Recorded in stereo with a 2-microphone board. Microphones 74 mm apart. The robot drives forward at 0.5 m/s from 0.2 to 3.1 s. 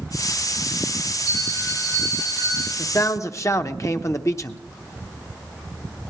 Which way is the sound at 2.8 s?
45° left (ahead or behind).